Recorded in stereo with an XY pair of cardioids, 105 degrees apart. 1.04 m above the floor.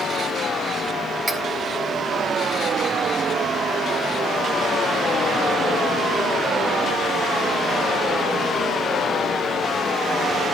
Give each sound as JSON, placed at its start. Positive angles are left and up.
{"t": 1.3, "sound": "cutlery clinking", "azimuth_deg": -20, "distance_m": 3.0}